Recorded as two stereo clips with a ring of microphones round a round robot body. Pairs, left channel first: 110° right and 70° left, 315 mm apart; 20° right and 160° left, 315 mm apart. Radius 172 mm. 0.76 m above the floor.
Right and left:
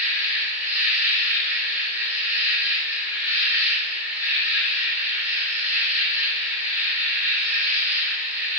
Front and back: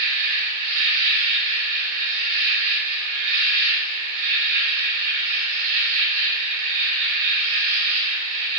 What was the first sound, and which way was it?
An insect, 155° left.